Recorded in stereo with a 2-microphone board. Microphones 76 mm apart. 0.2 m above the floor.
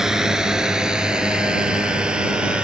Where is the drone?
5° right (ahead or behind); by 2.6 s 15° right (ahead or behind).